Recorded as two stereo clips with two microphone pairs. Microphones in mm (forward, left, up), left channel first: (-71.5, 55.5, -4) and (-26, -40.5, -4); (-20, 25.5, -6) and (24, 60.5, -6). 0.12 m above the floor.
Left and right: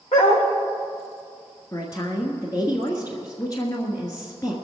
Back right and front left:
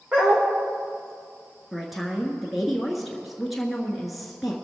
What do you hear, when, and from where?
0.1 s a dog barking: 110° left, 3.5 m
1.7 s a woman speaking: 125° left, 1.4 m